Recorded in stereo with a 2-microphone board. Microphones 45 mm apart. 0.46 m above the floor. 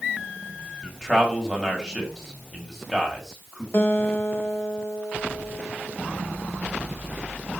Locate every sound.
0.8 s a man speaking: 10° left (ahead or behind), 2.5 m
3.7 s a guitar: 65° left (ahead or behind), 1.3 m